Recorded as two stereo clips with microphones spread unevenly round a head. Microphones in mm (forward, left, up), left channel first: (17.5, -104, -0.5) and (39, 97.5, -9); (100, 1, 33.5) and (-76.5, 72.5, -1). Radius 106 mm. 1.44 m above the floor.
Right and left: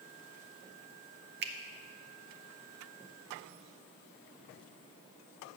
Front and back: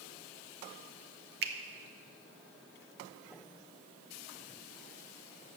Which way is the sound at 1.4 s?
120° left.